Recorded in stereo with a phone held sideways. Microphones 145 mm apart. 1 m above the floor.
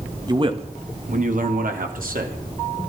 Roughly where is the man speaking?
Right.